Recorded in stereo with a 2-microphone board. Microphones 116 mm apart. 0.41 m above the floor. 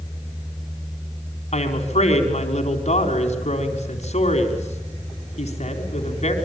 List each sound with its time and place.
1.5 s a woman speaking: 65° left (ahead or behind), 3.5 m